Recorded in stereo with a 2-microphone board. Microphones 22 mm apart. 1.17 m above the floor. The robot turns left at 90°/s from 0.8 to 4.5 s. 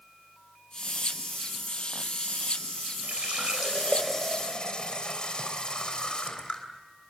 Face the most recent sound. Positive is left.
turn(degrees=135)